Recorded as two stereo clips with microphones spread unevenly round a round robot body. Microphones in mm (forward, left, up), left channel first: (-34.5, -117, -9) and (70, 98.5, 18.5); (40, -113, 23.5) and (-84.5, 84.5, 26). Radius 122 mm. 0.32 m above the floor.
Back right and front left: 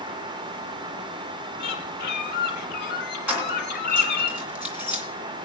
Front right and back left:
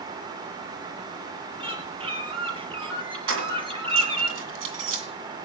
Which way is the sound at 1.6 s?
170° right.